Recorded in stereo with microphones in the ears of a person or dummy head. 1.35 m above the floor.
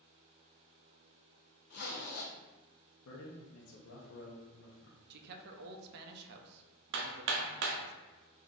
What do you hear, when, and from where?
1.7 s a zipper: 60° left (ahead or behind), 0.6 m
3.0 s a man speaking: 85° left, 0.7 m
5.1 s a man speaking: 55° right (ahead or behind), 0.5 m
6.9 s hammering: 70° right (ahead or behind), 0.5 m